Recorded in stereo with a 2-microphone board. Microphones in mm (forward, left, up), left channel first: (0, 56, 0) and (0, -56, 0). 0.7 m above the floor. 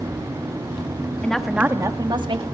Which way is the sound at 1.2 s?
10° left (ahead or behind).